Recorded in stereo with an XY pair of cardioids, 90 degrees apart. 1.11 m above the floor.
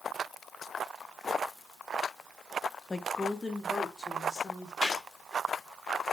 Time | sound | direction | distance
2.9 | a woman speaking | 25° left | 0.9 m
4.8 | a gunshot | 45° left | 2 m